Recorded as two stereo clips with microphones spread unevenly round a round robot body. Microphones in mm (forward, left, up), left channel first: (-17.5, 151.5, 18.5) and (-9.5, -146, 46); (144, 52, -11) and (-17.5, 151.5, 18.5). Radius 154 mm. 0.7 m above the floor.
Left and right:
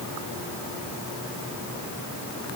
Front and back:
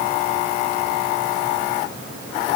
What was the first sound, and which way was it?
Only background noise.